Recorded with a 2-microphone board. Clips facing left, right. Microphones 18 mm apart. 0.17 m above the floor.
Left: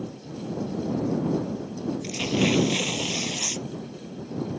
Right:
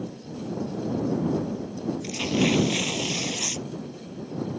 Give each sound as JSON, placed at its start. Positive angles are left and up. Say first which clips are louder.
{"t": 2.0, "sound": "tearing paper", "louder": "even", "side_deg": 5}